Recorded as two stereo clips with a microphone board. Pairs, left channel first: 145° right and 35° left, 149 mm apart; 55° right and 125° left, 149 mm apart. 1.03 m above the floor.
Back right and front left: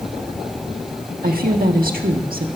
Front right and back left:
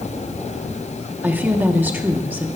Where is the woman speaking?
45° left, 1.6 m.